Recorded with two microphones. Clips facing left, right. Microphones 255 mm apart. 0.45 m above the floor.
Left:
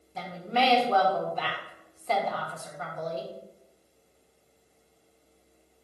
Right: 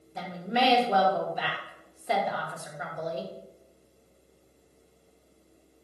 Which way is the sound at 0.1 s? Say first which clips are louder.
Even; 15° right (ahead or behind).